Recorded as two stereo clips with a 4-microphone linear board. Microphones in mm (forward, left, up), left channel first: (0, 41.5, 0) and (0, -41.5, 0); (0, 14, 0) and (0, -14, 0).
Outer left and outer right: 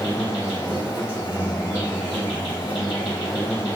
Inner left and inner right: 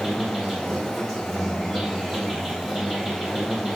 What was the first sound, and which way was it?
An insect, 15° right (ahead or behind).